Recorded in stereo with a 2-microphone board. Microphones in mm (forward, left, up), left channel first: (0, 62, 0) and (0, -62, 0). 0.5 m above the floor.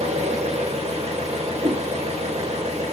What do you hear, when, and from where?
0.0 s an engine running: 65° right (ahead or behind), 0.9 m
1.6 s a whoosh: 85° right, 2 m